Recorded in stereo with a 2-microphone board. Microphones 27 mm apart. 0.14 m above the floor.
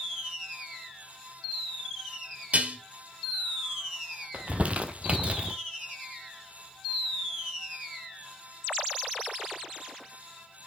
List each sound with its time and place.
2.5 s dishes clattering: 55° right (ahead or behind), 2.5 m
4.3 s crumpling: 50° right (ahead or behind), 0.7 m